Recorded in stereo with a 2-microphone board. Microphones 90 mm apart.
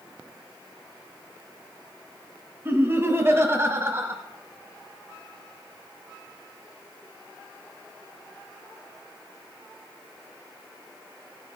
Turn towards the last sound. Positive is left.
turn(degrees=-25)  # may be behind; listen again after turning